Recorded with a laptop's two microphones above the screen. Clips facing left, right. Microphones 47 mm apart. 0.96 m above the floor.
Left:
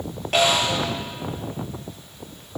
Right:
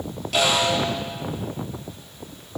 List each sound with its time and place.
0.3 s a snare drum: 40° left (ahead or behind), 9.5 m